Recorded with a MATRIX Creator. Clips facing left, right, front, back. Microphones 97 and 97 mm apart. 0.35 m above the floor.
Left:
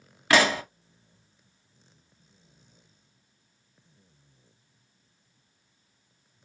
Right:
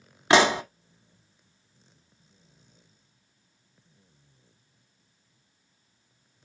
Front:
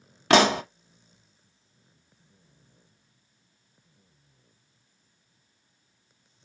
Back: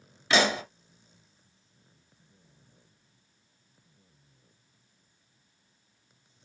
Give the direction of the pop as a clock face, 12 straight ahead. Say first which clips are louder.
Right 3 dB, front 6 dB; 1 o'clock.